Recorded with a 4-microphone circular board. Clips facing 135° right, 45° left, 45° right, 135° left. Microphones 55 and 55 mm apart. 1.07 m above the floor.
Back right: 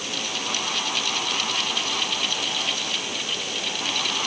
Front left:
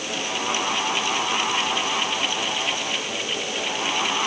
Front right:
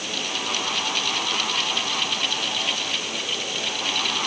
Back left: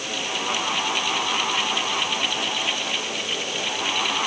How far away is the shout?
I don't hear a shout.